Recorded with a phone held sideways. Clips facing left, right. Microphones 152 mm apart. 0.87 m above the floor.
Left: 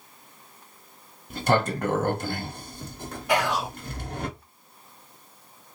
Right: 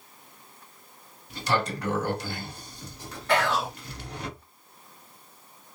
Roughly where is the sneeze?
No sneeze in this recording.